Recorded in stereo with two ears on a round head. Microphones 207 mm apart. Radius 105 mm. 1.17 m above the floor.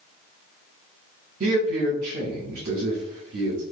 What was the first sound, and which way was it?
A man speaking, 40° right (ahead or behind).